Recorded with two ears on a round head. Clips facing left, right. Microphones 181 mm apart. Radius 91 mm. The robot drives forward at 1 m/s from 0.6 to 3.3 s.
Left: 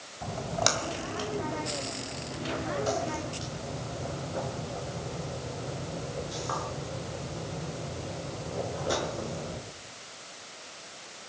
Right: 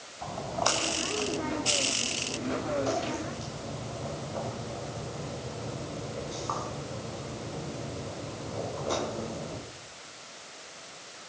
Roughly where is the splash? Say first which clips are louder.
Left 1 dB; left.